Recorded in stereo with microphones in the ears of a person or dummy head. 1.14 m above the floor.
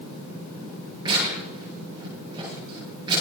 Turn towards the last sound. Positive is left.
turn(degrees=-20)  # may be behind; listen again after turning